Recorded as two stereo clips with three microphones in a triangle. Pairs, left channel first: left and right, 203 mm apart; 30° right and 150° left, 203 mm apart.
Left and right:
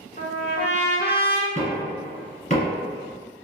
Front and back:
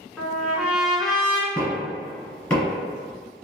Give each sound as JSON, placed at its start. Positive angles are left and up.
{"t": 0.2, "sound": "a trumpet", "azimuth_deg": 60, "distance_m": 0.6}
{"t": 1.6, "sound": "knocking", "azimuth_deg": 55, "distance_m": 1.4}